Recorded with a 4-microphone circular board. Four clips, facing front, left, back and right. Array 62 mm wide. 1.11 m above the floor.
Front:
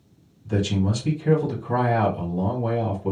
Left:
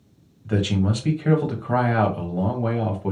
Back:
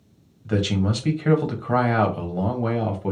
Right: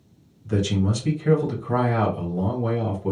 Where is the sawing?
I don't hear sawing.